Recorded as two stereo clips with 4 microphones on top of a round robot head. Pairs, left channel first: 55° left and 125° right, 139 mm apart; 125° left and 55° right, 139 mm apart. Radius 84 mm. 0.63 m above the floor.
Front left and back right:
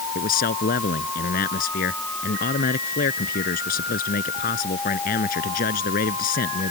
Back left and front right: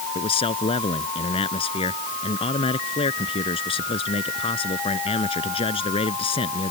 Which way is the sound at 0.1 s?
75° left.